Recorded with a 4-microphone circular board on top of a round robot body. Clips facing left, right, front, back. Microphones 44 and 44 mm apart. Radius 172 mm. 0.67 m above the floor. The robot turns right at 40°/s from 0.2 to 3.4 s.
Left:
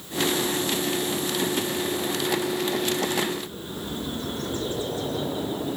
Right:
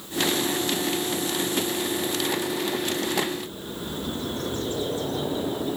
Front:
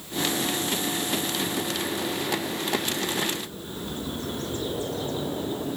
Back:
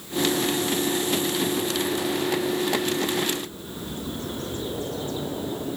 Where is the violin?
I don't hear a violin.